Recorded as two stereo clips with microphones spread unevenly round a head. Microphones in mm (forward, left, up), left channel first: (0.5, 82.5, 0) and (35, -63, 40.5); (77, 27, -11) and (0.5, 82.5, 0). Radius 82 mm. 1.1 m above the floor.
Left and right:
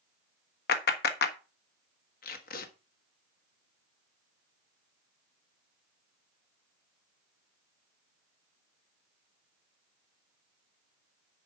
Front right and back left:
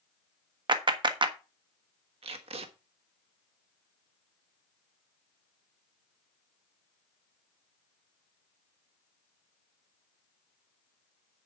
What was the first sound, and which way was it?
A clap, 105° left.